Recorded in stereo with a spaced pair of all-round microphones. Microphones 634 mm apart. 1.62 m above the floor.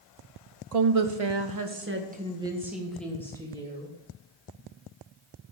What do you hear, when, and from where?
0.7 s a woman speaking: 75° right (ahead or behind), 1.0 m; by 3.9 s 10° left (ahead or behind), 3 m